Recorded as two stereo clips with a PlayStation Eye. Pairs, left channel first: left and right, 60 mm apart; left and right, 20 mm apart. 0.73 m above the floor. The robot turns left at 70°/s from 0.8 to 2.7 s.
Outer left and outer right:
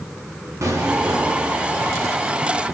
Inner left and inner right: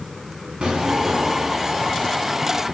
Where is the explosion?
55° right, 3 m; by 1.6 s 115° right, 3 m.